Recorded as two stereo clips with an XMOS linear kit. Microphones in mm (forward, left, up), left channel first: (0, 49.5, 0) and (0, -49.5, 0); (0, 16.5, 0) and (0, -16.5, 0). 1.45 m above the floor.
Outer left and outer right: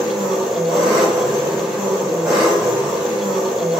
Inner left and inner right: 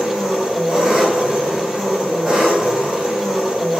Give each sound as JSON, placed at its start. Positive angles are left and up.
{"t": 0.0, "sound": "an engine running", "side_deg": -10, "distance_m": 1.7}